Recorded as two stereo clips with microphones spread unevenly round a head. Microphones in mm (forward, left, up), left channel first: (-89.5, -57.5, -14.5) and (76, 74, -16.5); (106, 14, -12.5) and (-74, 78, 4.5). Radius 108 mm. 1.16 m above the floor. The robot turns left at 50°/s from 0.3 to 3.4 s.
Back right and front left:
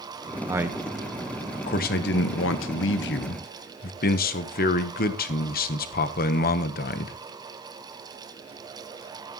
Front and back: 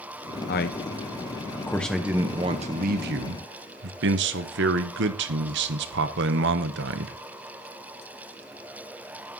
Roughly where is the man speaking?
Ahead right.